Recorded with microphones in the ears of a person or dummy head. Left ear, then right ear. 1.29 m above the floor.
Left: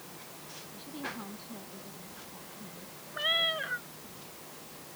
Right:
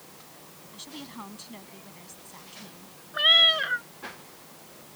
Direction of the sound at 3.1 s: 50° right (ahead or behind).